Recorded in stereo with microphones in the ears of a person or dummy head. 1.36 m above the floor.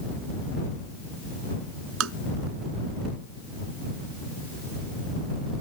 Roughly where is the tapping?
Right.